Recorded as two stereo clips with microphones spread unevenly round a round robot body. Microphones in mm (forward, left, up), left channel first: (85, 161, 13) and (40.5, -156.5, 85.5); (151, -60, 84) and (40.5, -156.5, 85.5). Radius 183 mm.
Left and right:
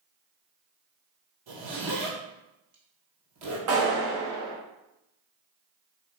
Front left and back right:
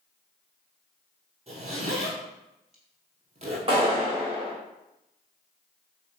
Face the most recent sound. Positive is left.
turn(degrees=-90)